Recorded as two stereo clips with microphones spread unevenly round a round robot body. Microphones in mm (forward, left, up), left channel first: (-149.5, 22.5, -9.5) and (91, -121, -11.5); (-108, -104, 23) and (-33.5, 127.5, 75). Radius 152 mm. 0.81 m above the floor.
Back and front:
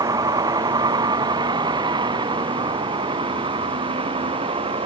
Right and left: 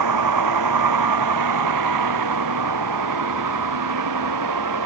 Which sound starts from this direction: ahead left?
A vehicle, at 0.0 s.